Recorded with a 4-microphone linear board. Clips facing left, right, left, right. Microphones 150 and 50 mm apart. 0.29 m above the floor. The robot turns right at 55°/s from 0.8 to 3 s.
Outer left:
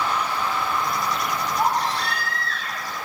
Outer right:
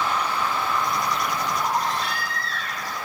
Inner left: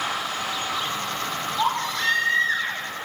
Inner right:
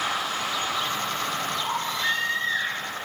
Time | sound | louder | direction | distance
1.6 | a baby crying | outer left 5 dB, inner left 3 dB | 80° left | 9 m